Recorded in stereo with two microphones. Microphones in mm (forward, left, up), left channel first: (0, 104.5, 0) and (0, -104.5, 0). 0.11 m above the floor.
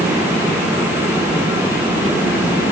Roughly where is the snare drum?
I don't hear a snare drum.